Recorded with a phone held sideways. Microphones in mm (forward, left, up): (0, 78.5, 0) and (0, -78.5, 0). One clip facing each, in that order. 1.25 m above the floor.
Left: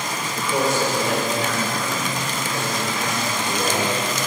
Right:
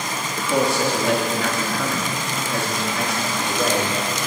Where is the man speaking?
70° right (ahead or behind), 2.5 m.